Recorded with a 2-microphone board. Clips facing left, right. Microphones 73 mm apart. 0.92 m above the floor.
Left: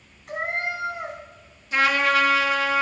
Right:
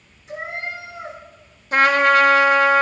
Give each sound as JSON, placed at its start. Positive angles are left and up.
{"t": 0.3, "sound": "a cat meowing", "side_deg": 60, "distance_m": 2.5}
{"t": 1.7, "sound": "a trumpet", "side_deg": -45, "distance_m": 0.9}